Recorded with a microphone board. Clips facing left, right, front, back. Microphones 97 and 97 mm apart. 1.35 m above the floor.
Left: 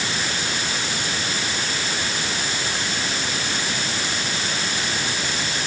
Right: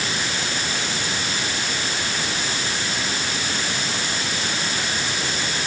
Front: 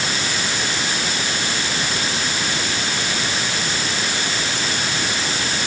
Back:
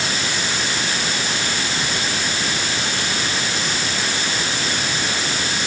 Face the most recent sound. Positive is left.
No sound to turn to.